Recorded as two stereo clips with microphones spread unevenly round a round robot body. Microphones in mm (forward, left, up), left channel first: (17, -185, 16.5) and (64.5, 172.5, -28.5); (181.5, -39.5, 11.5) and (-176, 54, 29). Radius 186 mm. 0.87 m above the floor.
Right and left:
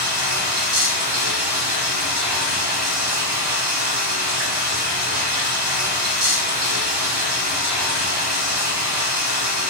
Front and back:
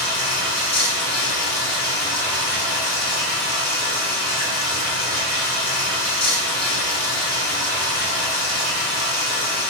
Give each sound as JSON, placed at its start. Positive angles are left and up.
{"t": 0.0, "sound": "running water", "azimuth_deg": 60, "distance_m": 1.5}